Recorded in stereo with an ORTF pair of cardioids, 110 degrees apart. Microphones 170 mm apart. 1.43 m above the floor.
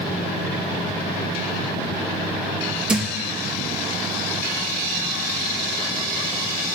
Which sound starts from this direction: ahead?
A thud, at 2.9 s.